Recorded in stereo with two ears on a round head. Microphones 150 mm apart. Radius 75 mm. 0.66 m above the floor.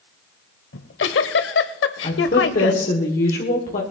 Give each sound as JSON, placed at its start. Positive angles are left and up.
{"t": 0.7, "sound": "a giggle", "side_deg": 80, "distance_m": 0.9}
{"t": 2.0, "sound": "a woman speaking", "side_deg": 55, "distance_m": 1.8}